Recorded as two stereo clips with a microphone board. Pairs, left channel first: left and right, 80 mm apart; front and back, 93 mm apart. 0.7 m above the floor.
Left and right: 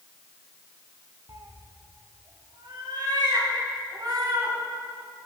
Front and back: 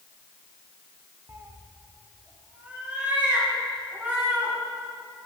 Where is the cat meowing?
120° right, 0.8 m; by 4.5 s 105° right, 3 m.